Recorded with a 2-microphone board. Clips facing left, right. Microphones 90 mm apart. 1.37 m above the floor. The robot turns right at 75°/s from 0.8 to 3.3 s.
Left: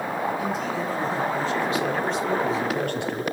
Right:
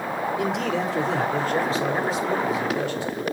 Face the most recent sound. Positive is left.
turn(degrees=85)